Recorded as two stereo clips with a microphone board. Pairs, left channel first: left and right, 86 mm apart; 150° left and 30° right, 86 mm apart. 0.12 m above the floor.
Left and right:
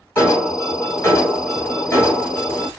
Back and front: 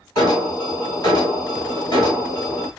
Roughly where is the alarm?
Behind left.